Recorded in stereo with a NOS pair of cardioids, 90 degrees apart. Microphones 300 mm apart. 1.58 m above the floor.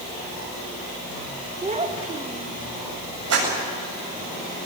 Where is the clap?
50° right, 9 m.